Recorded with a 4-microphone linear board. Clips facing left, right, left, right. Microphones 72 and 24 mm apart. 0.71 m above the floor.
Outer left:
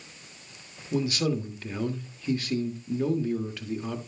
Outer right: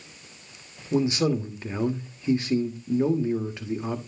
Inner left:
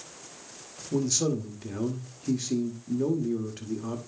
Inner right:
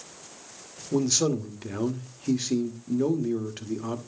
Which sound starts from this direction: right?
A man speaking, at 0.9 s.